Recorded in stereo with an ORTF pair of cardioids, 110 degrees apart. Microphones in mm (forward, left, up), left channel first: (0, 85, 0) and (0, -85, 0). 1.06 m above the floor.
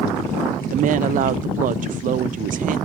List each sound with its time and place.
0.7 s a woman speaking: 50° right, 0.5 m